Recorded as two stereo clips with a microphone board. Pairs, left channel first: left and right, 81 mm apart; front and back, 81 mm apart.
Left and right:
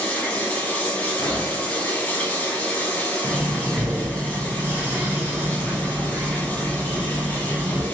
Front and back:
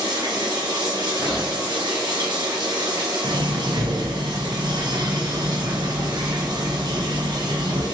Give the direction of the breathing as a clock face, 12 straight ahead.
5 o'clock.